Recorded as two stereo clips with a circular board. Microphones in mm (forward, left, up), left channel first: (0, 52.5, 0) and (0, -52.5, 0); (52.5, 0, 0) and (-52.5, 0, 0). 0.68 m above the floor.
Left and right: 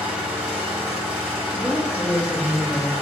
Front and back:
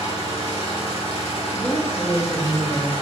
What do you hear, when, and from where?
0.0 s an engine running: 10° right, 1.1 m
1.5 s a woman speaking: straight ahead, 0.6 m